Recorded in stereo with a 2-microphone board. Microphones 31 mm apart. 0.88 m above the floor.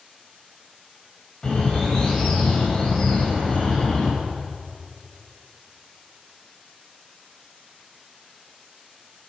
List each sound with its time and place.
1.4 s a bird: 25° left (ahead or behind), 2.5 m